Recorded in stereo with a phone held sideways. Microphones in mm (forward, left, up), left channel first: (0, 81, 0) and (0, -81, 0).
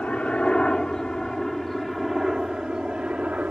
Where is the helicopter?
10° left (ahead or behind); by 3.5 s 10° right (ahead or behind).